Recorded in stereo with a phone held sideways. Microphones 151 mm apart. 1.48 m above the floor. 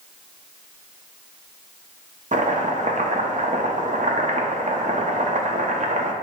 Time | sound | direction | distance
2.3 | chopping | 55° right (ahead or behind) | 0.6 m